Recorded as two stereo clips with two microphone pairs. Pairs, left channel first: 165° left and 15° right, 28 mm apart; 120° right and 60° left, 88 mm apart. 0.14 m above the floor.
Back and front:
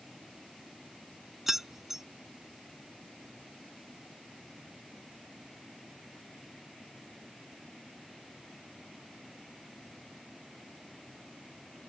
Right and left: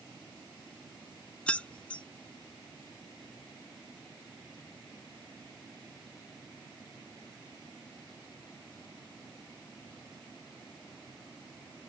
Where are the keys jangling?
75° right.